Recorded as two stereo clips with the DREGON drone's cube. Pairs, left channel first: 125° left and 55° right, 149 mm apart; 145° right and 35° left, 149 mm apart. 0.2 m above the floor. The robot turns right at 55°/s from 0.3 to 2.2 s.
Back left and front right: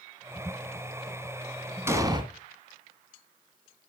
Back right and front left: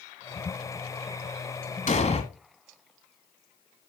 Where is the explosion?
125° right, 1.3 m; by 2.2 s 110° right, 1.3 m.